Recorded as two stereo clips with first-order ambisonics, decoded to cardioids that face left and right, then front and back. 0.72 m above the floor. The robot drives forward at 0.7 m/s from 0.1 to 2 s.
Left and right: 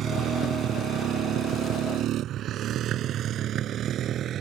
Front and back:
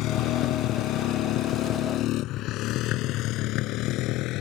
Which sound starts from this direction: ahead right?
A motorcycle, at 0.0 s.